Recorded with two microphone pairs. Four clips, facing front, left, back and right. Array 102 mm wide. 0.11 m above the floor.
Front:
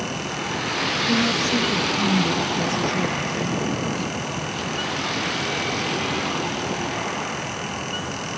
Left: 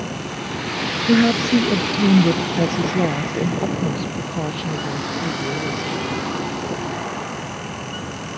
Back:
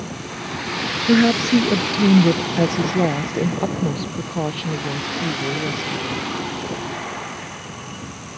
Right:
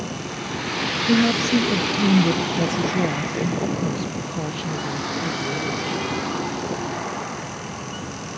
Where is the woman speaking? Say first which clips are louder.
Left 3 dB, back 8 dB; 150° left; by 6.3 s 170° left.